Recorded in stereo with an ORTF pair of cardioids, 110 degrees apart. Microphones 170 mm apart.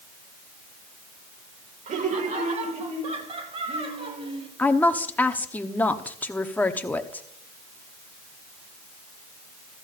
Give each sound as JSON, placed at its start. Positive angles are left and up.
{"t": 1.9, "sound": "laughter", "azimuth_deg": -55, "distance_m": 2.0}
{"t": 4.6, "sound": "a woman speaking", "azimuth_deg": 10, "distance_m": 1.0}